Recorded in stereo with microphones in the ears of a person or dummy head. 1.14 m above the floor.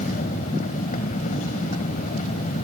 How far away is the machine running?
About 1.6 m.